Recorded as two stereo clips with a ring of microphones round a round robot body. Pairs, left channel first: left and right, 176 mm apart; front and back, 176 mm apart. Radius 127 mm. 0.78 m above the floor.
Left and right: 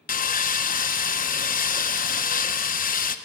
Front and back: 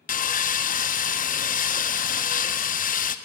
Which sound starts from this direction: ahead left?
Sawing, at 0.1 s.